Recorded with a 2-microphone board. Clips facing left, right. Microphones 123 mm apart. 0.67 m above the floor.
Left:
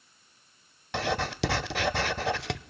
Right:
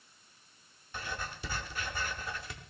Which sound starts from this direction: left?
Writing, at 0.9 s.